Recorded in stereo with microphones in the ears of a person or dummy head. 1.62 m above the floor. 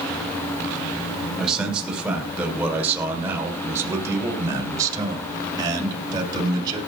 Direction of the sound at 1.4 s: 5° left (ahead or behind).